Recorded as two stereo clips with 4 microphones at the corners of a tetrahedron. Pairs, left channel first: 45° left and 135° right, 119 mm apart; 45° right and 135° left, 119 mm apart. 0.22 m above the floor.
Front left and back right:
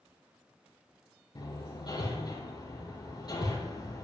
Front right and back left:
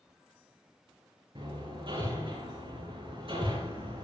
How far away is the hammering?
About 6 m.